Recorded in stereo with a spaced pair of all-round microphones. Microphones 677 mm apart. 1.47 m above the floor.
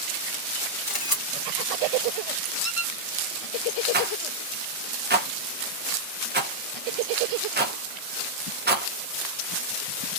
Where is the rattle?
15° right (ahead or behind), 0.6 m.